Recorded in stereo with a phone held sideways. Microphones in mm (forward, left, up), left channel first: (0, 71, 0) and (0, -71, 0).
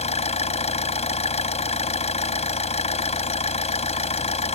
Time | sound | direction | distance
0.0 | an engine running | 50° left (ahead or behind) | ?